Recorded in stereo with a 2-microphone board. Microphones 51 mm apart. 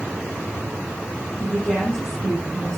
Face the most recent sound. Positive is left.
turn(degrees=20)  # may be behind; listen again after turning